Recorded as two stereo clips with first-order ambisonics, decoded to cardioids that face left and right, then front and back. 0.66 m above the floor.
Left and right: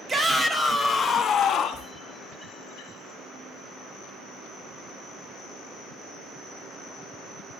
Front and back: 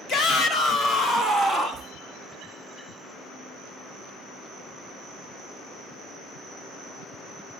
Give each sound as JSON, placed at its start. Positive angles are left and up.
{"t": 0.1, "sound": "a shout", "azimuth_deg": -25, "distance_m": 0.9}